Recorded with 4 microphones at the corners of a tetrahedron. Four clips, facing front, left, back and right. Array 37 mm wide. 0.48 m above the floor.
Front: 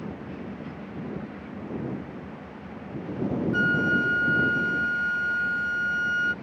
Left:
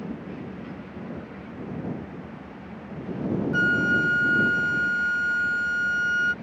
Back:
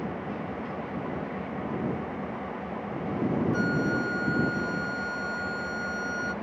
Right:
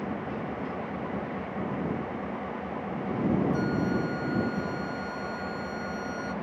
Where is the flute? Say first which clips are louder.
Left 7 dB, front 4 dB; 60° left.